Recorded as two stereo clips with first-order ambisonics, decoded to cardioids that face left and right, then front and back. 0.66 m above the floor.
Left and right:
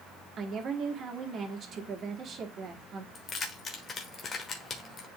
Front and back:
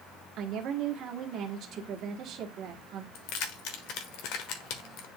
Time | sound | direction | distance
0.4 | a woman speaking | 145° right | 1.4 m
3.1 | keys jangling | 25° left | 1.3 m